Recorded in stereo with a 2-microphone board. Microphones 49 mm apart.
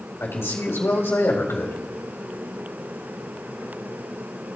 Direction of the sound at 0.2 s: 60° left (ahead or behind).